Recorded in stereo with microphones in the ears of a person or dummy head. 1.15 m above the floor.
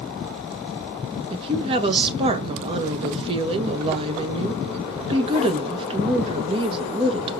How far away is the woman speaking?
About 1.4 m.